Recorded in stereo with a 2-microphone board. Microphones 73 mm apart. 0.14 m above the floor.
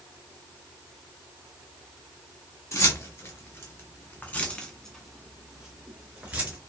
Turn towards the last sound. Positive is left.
turn(degrees=-20)  # may be behind; listen again after turning